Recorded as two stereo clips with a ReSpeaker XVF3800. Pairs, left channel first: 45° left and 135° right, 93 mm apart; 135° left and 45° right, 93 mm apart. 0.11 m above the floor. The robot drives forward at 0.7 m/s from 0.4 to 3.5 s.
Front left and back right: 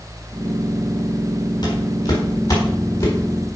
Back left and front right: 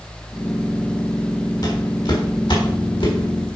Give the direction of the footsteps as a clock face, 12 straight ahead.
9 o'clock.